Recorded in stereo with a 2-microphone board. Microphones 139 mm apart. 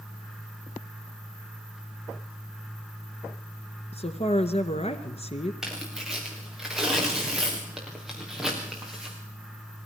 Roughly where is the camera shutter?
I don't hear a camera shutter.